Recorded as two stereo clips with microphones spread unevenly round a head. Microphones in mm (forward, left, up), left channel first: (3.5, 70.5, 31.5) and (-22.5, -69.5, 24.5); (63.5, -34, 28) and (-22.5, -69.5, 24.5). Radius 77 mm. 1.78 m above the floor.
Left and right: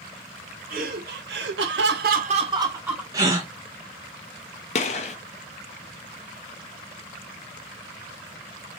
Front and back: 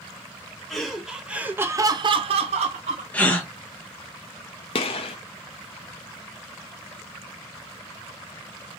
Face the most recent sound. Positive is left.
turn(degrees=40)